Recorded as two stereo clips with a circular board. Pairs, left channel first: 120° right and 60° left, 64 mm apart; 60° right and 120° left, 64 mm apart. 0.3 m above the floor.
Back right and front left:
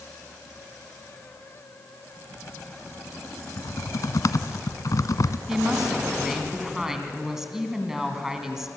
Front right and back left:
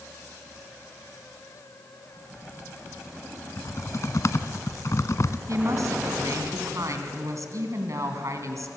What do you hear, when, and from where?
3.6 s typing on a keyboard: 95° right, 0.9 m
5.5 s a woman speaking: 145° left, 3 m